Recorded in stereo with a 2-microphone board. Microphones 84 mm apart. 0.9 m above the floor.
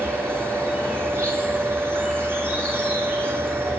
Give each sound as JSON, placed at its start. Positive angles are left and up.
{"t": 0.0, "sound": "an insect", "side_deg": -25, "distance_m": 10.0}